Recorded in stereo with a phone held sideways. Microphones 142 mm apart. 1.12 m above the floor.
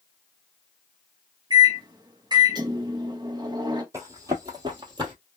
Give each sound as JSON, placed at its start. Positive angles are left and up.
{"t": 1.5, "sound": "a microwave", "side_deg": -30, "distance_m": 0.8}
{"t": 3.9, "sound": "running footsteps", "side_deg": -20, "distance_m": 1.5}